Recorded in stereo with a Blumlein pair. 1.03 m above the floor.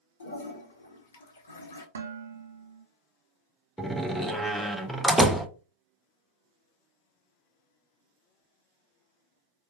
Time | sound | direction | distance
0.2 | a toilet flushing | 70° left | 1.2 m
1.9 | dishes clattering | 65° right | 0.6 m
3.8 | a door slam | 5° right | 0.6 m